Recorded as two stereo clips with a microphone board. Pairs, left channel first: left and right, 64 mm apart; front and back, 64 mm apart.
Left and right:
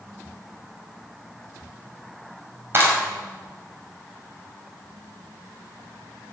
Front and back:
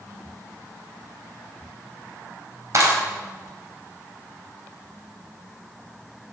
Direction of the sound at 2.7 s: 145° right.